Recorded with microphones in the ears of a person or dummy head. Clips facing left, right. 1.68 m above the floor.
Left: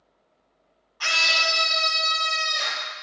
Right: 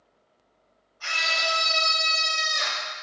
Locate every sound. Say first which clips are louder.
1.0 s a scream: left 1 dB; 85° left, 0.8 m; by 2.9 s 10° right (ahead or behind), 2.5 m